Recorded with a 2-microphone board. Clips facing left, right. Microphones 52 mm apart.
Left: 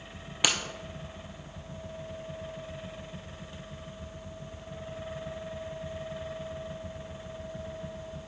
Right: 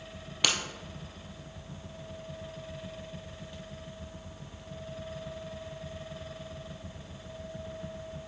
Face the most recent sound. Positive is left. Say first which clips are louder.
# left 1 dB
turn(degrees=10)  # may be behind; listen again after turning